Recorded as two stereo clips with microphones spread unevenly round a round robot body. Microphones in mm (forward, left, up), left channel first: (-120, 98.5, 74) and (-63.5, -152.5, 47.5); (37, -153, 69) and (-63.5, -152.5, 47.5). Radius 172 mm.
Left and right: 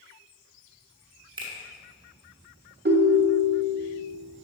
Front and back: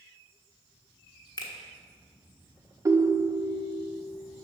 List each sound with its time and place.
1.4 s a finger snap: 35° right, 1.0 m
2.9 s a ringtone: 125° right, 0.9 m